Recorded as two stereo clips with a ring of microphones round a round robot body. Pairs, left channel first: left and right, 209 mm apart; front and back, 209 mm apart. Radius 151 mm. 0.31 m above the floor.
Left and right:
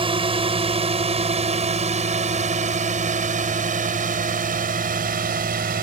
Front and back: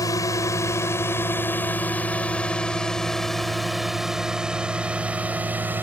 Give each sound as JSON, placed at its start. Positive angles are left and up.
{"t": 0.0, "sound": "a drone", "azimuth_deg": -60}